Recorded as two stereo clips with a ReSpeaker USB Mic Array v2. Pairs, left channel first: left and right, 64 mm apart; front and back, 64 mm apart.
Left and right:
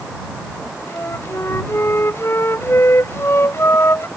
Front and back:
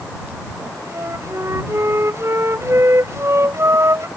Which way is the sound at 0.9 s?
135° left.